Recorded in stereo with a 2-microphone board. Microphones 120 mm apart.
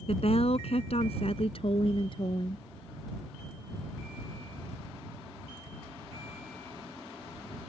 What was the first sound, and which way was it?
A woman speaking, 60° left (ahead or behind).